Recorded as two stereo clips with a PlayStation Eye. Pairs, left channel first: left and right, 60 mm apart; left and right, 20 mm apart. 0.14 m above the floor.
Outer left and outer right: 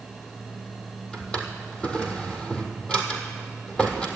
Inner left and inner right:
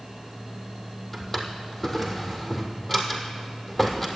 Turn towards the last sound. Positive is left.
turn(degrees=15)  # may be behind; listen again after turning